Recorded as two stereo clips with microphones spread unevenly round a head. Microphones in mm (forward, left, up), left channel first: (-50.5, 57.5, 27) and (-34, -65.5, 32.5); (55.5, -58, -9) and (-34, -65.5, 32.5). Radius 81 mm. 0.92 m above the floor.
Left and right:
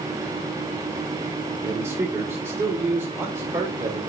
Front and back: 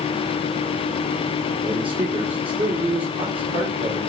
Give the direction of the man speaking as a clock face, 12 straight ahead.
5 o'clock.